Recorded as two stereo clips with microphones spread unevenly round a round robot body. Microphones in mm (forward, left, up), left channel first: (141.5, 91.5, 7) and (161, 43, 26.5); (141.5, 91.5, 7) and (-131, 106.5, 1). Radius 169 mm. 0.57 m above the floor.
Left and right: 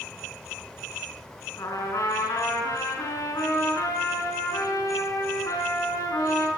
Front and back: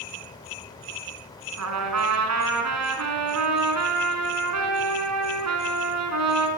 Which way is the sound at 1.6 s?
155° left.